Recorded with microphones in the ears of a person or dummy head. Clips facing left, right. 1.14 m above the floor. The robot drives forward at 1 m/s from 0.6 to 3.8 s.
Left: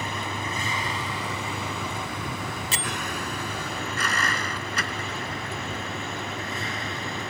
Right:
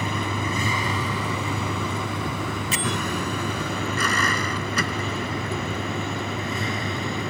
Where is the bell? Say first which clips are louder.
Right 5 dB; 30° left (ahead or behind); by 3.0 s 35° left (ahead or behind).